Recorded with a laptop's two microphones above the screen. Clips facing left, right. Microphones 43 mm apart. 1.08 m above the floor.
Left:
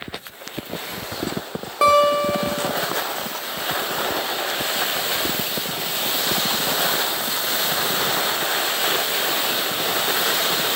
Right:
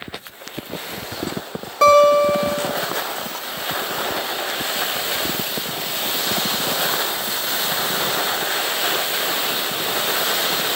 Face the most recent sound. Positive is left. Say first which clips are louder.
# right 4 dB
turn(degrees=10)  # may be behind; listen again after turning